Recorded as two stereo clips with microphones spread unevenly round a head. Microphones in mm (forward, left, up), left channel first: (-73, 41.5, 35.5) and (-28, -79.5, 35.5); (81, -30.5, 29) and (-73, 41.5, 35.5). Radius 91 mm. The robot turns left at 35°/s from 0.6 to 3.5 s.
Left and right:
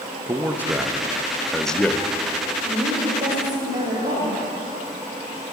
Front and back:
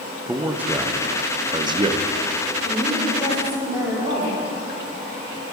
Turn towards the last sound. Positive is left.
turn(degrees=-130)